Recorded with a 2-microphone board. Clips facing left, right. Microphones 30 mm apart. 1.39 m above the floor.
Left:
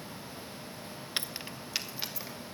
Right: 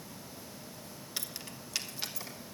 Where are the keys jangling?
40° left (ahead or behind), 0.5 m; by 2.4 s 10° left (ahead or behind), 1.6 m.